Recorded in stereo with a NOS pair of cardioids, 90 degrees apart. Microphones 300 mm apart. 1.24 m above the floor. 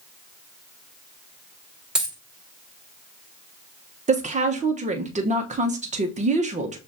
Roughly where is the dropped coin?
Ahead.